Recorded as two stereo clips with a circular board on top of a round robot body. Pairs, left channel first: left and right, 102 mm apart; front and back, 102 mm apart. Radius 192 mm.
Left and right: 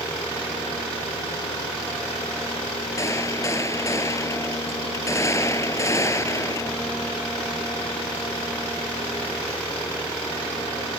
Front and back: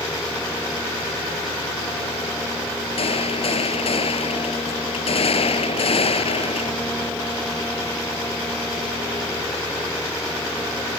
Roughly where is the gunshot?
Ahead left.